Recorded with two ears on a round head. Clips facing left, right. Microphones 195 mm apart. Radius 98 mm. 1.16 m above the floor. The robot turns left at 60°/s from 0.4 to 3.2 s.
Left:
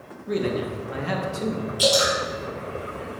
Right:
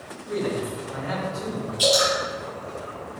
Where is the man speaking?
115° left, 1.8 m; by 1.7 s 35° left, 1.8 m.